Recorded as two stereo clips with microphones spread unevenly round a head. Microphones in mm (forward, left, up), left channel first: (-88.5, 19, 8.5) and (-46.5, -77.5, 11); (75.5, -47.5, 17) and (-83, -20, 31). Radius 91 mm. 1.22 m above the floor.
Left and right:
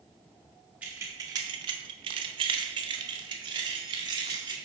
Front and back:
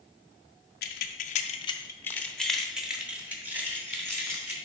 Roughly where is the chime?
I don't hear a chime.